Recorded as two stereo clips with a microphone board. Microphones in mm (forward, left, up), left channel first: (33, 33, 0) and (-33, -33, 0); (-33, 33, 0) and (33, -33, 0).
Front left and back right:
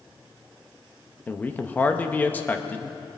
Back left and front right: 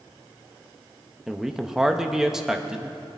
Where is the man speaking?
25° left, 0.8 m.